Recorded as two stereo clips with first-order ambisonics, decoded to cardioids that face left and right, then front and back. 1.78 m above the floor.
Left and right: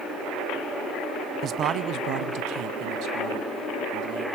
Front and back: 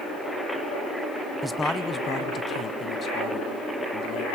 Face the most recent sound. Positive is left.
turn(degrees=-60)